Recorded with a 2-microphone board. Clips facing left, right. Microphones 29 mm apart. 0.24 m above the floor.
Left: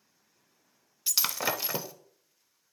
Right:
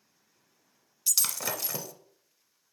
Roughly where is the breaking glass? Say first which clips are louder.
Left 2 dB; left.